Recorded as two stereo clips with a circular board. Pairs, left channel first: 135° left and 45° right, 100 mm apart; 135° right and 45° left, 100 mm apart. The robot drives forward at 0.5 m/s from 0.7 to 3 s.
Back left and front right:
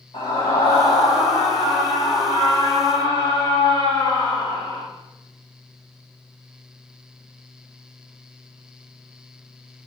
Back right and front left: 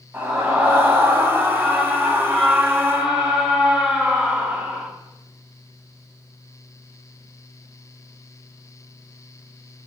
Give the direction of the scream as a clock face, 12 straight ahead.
8 o'clock.